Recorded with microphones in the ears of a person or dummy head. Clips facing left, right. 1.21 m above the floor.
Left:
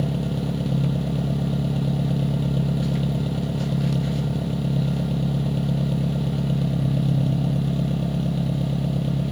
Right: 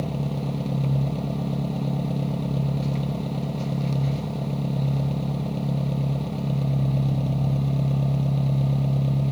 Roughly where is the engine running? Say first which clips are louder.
Left 3 dB; centre.